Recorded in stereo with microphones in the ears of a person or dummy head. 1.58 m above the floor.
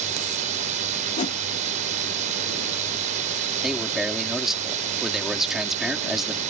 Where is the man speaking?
Centre (ahead or behind).